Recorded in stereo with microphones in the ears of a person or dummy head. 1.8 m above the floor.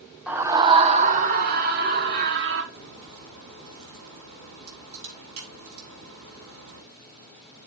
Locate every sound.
0.3 s a scream: 5° right (ahead or behind), 0.8 m; by 2.6 s 65° right (ahead or behind), 2.5 m
2.7 s a crack: 80° right, 7.5 m